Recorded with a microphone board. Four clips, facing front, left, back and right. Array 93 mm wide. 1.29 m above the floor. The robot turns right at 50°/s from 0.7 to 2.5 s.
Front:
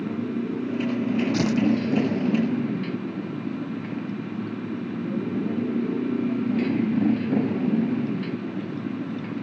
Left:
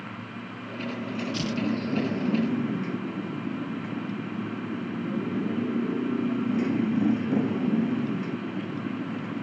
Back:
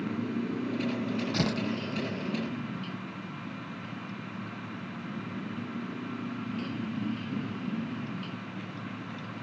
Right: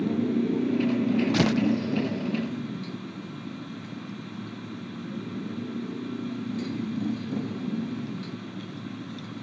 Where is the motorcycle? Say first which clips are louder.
Right 13 dB, front 5 dB; 65° right; by 9.4 s 25° left.